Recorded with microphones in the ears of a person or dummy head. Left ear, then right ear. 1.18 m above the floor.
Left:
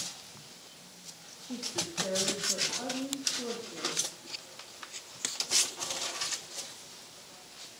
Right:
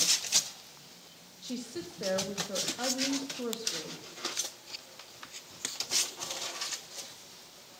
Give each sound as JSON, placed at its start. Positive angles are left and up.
{"t": 1.4, "sound": "a woman speaking", "side_deg": -80, "distance_m": 1.6}